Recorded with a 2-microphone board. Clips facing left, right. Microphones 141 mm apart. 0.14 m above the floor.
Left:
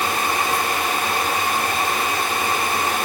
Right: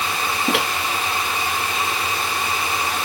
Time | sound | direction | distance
0.5 | a microwave | 80° right | ?